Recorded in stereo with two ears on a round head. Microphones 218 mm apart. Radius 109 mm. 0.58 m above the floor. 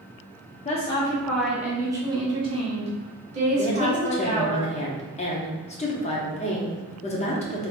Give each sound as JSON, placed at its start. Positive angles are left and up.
{"t": 0.7, "sound": "a woman speaking", "side_deg": 25, "distance_m": 0.7}
{"t": 3.6, "sound": "a woman speaking", "side_deg": 25, "distance_m": 0.8}